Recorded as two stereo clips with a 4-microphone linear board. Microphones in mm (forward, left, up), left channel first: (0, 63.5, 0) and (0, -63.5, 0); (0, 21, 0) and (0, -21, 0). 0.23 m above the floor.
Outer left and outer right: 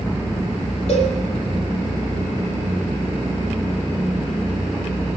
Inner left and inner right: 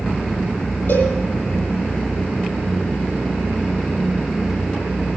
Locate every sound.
0.9 s a cowbell: 55° left (ahead or behind), 8 m